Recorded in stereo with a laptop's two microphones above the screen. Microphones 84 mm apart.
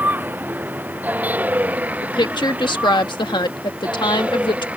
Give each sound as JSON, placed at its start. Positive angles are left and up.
{"t": 0.0, "sound": "a vehicle", "side_deg": -20}
{"t": 2.0, "sound": "a woman speaking", "side_deg": 60}